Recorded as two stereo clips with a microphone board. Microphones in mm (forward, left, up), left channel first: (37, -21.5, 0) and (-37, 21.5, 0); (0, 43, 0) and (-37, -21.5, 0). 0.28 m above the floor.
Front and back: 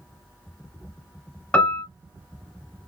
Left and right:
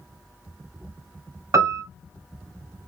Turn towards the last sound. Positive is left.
turn(degrees=-105)